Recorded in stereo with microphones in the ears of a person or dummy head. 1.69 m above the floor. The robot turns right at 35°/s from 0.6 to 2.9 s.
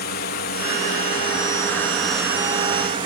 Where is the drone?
130° left; by 3.1 s 150° right.